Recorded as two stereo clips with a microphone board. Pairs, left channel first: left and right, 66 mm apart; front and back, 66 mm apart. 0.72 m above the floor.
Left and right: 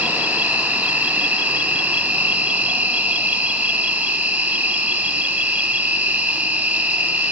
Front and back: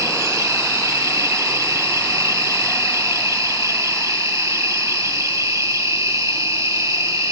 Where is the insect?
155° right, 1.0 m.